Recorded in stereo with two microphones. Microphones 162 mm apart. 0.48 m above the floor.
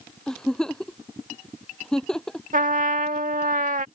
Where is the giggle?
5° left (ahead or behind).